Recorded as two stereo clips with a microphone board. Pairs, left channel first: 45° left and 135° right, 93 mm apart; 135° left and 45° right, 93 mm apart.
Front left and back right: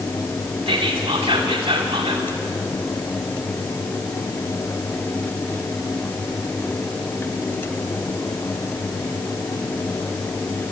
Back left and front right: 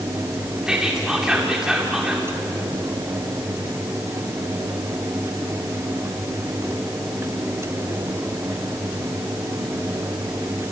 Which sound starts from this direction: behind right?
Whispering, at 0.7 s.